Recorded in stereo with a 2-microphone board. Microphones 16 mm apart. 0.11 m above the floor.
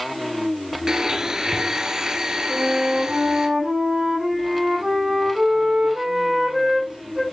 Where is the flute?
75° right (ahead or behind), 6.5 m.